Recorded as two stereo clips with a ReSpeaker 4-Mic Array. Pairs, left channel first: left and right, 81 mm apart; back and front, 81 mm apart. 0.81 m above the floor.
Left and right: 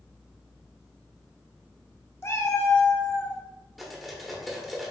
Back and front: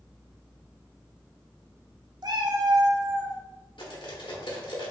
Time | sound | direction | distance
2.2 | a cat meowing | 35° left | 0.6 m
3.8 | cutlery clinking | straight behind | 1.1 m